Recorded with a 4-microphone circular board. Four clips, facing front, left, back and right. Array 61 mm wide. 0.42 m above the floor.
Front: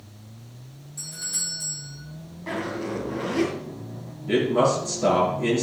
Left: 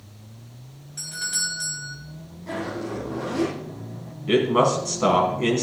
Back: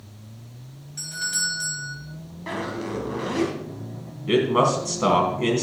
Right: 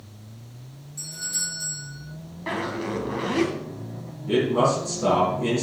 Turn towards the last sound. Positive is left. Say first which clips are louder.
# left 2 dB, back 1 dB
turn(degrees=140)